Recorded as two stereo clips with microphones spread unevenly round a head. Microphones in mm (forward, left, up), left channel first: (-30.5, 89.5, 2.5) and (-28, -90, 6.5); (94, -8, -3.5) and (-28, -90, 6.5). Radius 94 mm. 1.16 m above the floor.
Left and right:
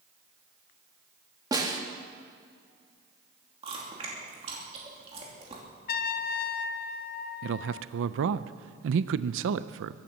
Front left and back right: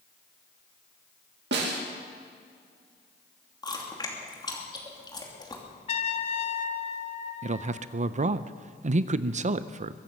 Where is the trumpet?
70° left, 0.6 m.